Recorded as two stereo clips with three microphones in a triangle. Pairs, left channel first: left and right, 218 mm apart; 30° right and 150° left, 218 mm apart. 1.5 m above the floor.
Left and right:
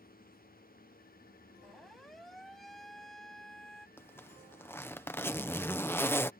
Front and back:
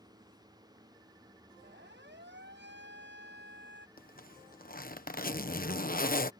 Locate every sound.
1.6 s a siren: straight behind
4.0 s a zipper: 10° left